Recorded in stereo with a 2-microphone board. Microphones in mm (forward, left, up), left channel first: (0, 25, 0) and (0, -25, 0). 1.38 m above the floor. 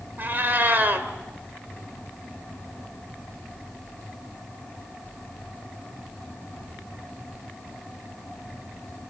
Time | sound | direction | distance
0.2 | a cat meowing | 45° right (ahead or behind) | 2.0 m